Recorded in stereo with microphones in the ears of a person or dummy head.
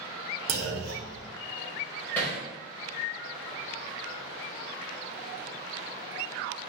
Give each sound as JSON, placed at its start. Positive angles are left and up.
{"t": 0.5, "sound": "a clunk", "side_deg": -60, "distance_m": 1.0}
{"t": 2.1, "sound": "hammering", "side_deg": 10, "distance_m": 1.1}